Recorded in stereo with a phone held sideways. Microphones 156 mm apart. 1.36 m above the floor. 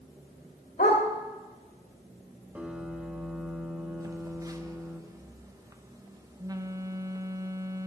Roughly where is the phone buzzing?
Right.